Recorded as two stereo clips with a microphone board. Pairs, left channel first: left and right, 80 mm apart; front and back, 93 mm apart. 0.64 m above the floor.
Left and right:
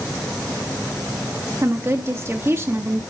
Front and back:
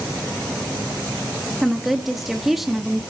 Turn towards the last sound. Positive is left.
turn(degrees=-95)